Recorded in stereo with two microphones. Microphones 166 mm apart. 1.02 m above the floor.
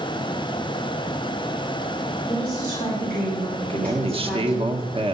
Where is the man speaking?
35° right (ahead or behind), 1.3 m.